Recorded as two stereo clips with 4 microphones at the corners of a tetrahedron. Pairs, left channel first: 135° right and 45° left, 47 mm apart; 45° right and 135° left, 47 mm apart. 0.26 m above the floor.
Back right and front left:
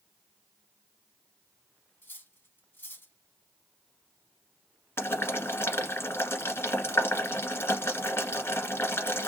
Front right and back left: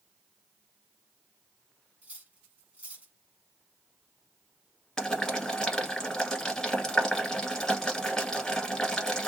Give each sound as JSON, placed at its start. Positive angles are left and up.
{"t": 2.0, "sound": "cutlery clinking", "azimuth_deg": -170, "distance_m": 1.1}
{"t": 5.0, "sound": "boiling", "azimuth_deg": -125, "distance_m": 1.3}